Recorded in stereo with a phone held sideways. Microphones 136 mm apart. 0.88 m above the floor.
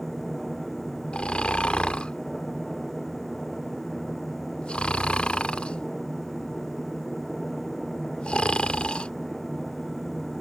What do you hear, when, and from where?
0.0 s a machine running: centre (ahead or behind)
1.1 s snoring: 10° left (ahead or behind)